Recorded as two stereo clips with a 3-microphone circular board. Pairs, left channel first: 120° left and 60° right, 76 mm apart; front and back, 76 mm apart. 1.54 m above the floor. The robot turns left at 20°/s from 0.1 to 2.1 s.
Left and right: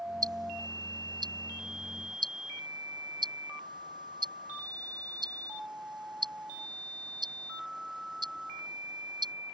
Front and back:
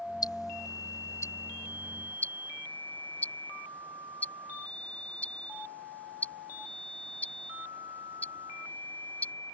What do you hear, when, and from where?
0.2 s ticking: 30° right; by 9.3 s 70° right